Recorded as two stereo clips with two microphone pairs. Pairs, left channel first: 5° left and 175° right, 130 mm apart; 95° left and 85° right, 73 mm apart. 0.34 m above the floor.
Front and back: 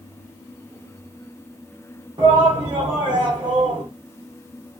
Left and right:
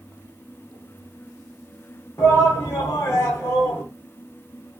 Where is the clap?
I don't hear a clap.